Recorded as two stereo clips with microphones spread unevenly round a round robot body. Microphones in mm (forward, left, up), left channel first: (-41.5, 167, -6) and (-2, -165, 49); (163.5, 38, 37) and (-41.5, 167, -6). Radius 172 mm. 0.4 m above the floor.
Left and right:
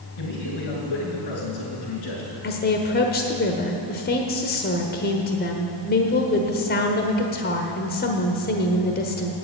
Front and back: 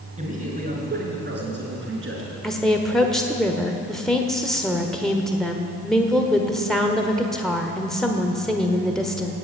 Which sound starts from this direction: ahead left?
A woman speaking, at 2.4 s.